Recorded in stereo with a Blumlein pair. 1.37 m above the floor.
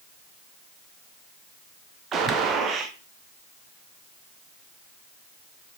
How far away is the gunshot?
About 0.6 m.